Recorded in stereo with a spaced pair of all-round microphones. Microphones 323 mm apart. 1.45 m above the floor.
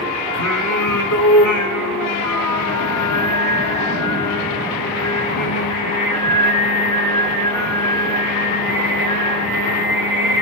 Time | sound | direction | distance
0.3 | singing | 65° left (ahead or behind) | 3 m